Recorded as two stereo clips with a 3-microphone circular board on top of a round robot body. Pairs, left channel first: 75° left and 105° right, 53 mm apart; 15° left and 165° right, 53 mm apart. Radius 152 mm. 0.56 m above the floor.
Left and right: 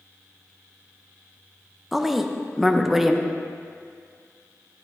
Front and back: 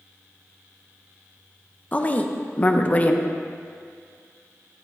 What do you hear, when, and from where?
1.9 s a woman speaking: 20° right, 0.8 m